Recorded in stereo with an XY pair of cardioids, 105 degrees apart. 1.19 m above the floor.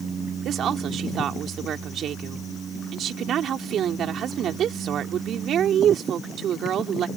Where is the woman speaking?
70° right.